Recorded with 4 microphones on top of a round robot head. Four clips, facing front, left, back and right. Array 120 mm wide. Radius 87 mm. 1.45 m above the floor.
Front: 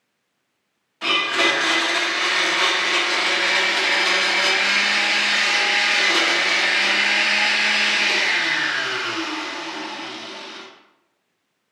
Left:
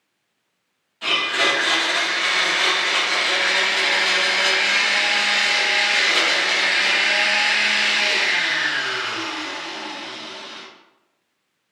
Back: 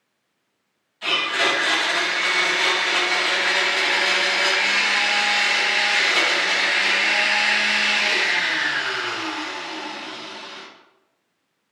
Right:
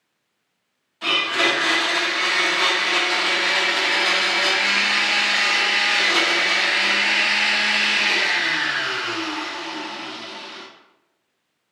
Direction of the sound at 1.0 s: 5° right.